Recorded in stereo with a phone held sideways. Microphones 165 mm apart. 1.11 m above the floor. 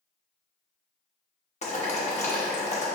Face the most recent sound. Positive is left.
turn(degrees=45)  # may be behind; listen again after turning